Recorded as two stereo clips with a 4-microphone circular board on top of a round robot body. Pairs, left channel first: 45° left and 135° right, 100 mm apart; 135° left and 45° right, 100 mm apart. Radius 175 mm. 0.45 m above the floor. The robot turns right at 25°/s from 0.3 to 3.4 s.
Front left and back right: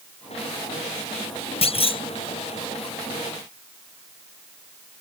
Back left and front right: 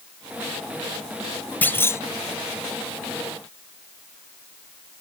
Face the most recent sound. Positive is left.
turn(degrees=105)